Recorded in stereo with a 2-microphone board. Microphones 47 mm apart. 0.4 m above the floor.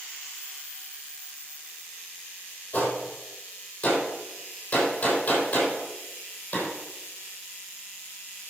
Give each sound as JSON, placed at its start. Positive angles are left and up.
{"t": 2.7, "sound": "a gunshot", "side_deg": 30, "distance_m": 5.5}